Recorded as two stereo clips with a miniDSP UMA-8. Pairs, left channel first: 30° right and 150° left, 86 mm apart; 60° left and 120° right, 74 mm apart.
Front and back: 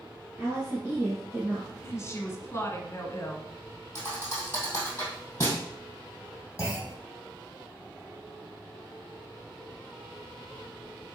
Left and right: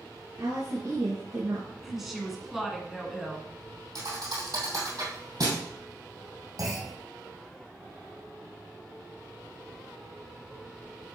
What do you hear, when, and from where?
0.4 s a woman speaking: 150° right, 2.5 m
1.8 s a woman speaking: 35° right, 1.3 m
4.0 s a thud: 95° right, 3 m
6.6 s a clunk: 90° right, 2.5 m